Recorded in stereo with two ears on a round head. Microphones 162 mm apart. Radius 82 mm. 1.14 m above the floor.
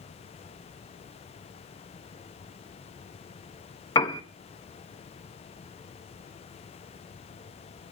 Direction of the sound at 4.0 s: 20° left (ahead or behind).